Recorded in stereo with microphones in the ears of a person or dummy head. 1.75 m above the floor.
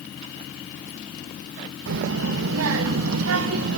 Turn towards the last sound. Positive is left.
turn(degrees=-75)  # may be behind; listen again after turning